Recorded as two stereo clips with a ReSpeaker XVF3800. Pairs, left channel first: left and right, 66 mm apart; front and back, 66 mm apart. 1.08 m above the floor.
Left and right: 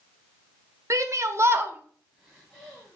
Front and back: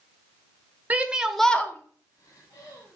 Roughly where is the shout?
Behind right.